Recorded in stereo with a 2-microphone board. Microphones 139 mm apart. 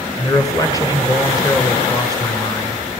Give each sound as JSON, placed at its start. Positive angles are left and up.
{"t": 0.2, "sound": "a man speaking", "side_deg": 25, "distance_m": 1.8}